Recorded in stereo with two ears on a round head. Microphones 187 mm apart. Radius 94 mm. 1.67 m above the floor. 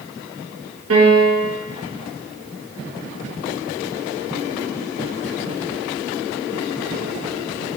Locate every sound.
0.9 s a piano: 70° right (ahead or behind), 1.7 m